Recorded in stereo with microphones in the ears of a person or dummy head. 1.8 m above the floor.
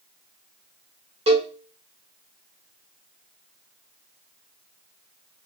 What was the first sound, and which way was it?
A cowbell, 25° right (ahead or behind).